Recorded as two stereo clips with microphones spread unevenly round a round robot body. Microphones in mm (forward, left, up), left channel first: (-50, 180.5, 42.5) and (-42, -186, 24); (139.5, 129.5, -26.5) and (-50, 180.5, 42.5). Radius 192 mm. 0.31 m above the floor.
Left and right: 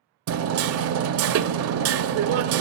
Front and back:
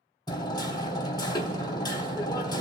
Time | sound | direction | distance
0.3 | hammering | 60° right | 0.6 m